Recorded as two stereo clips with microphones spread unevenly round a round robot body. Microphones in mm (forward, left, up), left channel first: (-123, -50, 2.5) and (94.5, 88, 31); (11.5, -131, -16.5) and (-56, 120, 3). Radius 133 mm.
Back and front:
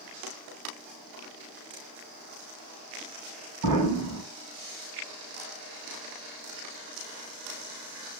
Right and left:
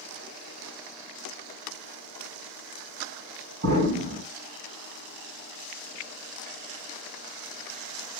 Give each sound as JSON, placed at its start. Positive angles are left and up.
{"t": 3.6, "sound": "an explosion", "azimuth_deg": 40, "distance_m": 4.0}